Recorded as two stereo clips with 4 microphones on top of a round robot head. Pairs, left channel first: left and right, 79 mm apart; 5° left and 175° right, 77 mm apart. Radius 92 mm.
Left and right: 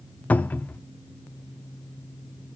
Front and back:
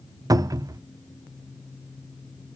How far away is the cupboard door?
About 0.5 m.